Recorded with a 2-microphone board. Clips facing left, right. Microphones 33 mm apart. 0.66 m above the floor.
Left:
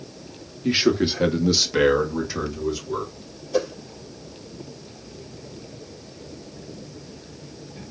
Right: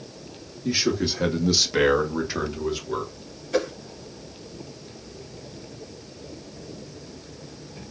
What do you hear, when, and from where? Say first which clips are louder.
0.6 s a man speaking: left 4 dB; 35° left (ahead or behind), 0.8 m; by 3.1 s 35° right (ahead or behind), 1.3 m
3.5 s a whoosh: left 1 dB; 75° right (ahead or behind), 1.8 m